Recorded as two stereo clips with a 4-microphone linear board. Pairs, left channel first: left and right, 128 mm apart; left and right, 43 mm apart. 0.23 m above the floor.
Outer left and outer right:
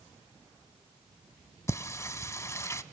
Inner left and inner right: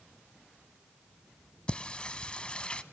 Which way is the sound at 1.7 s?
25° left (ahead or behind).